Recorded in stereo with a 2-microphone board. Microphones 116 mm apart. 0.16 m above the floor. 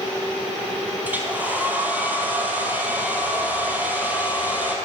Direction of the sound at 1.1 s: 15° right (ahead or behind).